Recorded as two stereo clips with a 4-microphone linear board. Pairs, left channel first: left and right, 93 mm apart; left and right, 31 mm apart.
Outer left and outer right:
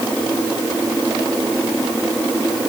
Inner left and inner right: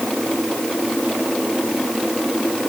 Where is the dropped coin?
No dropped coin in this recording.